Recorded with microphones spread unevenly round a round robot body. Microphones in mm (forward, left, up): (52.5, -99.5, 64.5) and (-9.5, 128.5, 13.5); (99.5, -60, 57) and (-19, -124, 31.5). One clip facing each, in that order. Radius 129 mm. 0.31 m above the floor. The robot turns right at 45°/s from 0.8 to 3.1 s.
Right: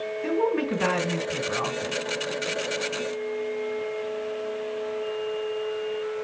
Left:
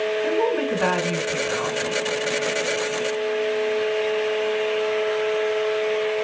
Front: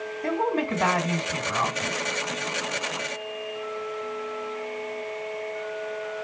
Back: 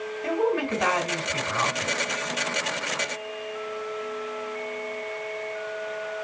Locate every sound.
0.2 s a woman speaking: 15° right, 2.5 m; by 2.0 s 40° left, 2.5 m